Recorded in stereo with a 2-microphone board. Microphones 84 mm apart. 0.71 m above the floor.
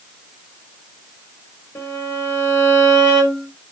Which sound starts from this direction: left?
A violin, at 1.8 s.